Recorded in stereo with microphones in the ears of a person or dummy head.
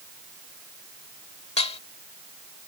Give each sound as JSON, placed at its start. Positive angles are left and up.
{"t": 1.6, "sound": "dishes clattering", "side_deg": 30}